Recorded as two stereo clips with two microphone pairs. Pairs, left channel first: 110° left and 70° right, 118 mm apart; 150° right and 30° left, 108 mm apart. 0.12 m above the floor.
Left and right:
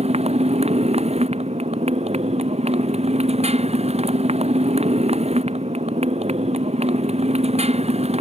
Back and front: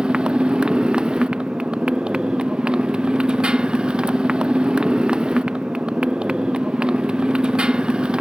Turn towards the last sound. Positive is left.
turn(degrees=-50)